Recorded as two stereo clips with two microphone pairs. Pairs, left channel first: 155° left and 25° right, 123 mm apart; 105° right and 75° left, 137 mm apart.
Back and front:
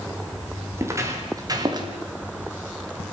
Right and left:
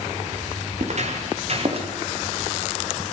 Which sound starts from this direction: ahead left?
Footsteps, at 0.8 s.